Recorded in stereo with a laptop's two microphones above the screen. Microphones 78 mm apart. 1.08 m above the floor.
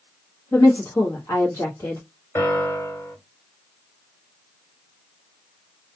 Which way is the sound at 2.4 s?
30° left (ahead or behind).